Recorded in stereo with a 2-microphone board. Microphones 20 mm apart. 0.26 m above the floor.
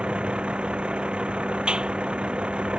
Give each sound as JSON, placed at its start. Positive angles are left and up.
{"t": 0.0, "sound": "a vehicle", "side_deg": -65}
{"t": 1.7, "sound": "a clap", "side_deg": -65}